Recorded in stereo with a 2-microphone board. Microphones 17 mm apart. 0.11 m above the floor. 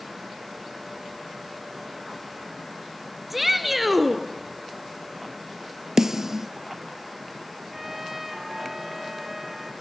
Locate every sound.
3.3 s a shout: 5° right (ahead or behind), 1.4 m
6.0 s a snare drum: 25° right (ahead or behind), 0.8 m
7.7 s a trumpet: 15° right (ahead or behind), 0.9 m